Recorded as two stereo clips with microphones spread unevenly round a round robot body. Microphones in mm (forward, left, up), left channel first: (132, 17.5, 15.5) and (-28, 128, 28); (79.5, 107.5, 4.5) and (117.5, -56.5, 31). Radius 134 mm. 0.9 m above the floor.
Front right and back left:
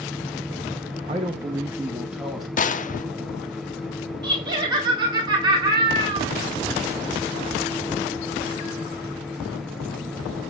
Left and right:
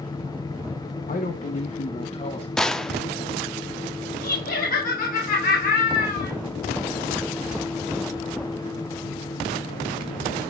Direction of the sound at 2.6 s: 15° left.